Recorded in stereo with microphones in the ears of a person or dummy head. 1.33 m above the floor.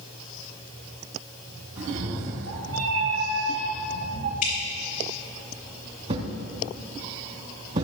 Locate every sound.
1.8 s a cat meowing: 70° right (ahead or behind), 2.5 m
4.4 s dripping: 40° left (ahead or behind), 4 m
6.1 s a thud: 40° right (ahead or behind), 2.5 m